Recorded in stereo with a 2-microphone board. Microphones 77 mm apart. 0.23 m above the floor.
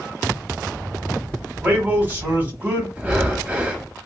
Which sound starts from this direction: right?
A man speaking, at 1.6 s.